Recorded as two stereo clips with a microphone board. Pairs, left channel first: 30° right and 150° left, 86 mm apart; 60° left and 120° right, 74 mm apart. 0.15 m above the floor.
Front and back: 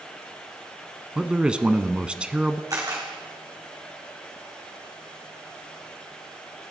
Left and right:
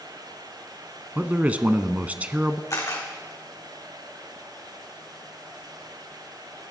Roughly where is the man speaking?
Behind right.